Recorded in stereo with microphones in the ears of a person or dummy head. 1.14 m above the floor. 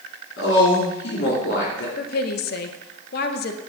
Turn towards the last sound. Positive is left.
turn(degrees=60)  # may be behind; listen again after turning